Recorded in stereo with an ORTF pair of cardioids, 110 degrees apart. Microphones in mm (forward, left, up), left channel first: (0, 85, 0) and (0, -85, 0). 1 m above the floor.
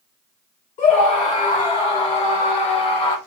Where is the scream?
50° left, 3.5 m; by 3.2 s 30° left, 2 m.